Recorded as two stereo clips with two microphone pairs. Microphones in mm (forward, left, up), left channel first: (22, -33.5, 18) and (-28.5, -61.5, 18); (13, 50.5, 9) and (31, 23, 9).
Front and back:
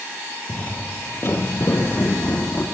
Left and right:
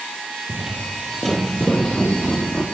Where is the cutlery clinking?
No cutlery clinking in this recording.